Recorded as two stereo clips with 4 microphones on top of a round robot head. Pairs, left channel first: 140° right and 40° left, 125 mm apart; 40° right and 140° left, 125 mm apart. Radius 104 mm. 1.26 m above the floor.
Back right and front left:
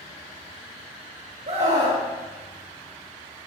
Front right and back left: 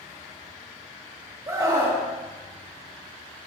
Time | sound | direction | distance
1.5 | a scream | 75° left | 3 m